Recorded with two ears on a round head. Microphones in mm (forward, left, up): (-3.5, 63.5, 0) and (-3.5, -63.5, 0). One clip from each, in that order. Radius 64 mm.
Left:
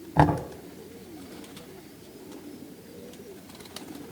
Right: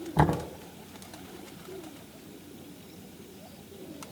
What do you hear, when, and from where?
0.2 s knocking: 55° left (ahead or behind), 2 m